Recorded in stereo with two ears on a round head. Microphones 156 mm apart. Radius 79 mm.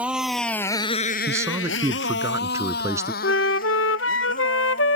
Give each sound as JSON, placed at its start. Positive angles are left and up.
{"t": 0.0, "sound": "a motorcycle", "side_deg": -5}
{"t": 1.3, "sound": "a man speaking", "side_deg": -20}
{"t": 3.2, "sound": "a flute", "side_deg": 85}